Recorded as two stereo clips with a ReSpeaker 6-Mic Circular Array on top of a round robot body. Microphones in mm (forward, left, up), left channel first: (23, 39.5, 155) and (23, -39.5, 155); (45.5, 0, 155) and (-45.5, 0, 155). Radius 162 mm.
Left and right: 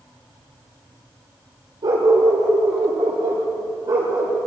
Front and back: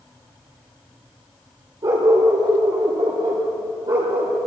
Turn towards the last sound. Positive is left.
turn(degrees=-145)